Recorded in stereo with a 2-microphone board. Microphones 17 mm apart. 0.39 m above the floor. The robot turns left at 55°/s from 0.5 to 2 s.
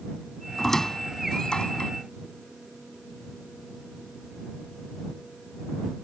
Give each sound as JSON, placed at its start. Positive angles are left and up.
{"t": 0.6, "sound": "a squeak", "side_deg": 20}